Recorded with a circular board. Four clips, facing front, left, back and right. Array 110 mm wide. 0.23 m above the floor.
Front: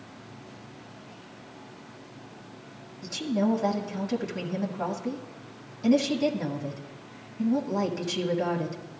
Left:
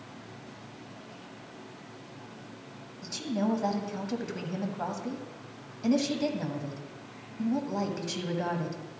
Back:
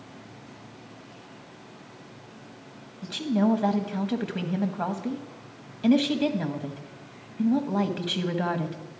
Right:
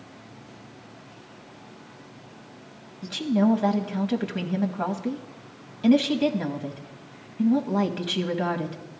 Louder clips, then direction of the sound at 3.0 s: Right 8 dB, back 2 dB; 135° right.